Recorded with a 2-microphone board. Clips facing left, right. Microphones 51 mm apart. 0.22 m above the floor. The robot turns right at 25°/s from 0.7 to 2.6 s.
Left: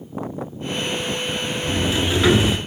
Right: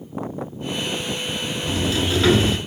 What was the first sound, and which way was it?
A sliding door, 30° left (ahead or behind).